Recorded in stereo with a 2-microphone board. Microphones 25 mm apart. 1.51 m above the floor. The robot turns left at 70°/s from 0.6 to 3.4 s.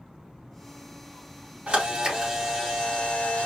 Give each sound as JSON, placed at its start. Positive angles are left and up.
{"t": 1.7, "sound": "a camera shutter", "azimuth_deg": -125, "distance_m": 3.0}